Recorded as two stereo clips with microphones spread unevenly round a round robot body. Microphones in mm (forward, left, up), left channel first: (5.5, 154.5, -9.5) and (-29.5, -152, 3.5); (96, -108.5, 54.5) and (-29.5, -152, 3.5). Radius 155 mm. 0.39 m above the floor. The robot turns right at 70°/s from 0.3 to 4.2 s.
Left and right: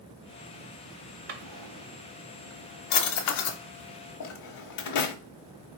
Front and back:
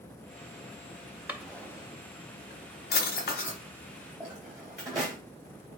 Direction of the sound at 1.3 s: 90° right.